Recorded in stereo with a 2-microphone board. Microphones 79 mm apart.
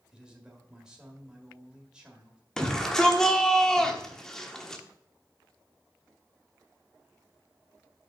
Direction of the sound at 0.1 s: 10° right (ahead or behind).